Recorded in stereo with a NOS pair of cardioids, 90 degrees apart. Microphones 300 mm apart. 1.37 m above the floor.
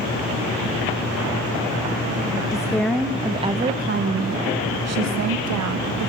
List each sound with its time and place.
2.5 s a woman speaking: 10° left, 1.0 m; by 6.1 s 70° right, 1.7 m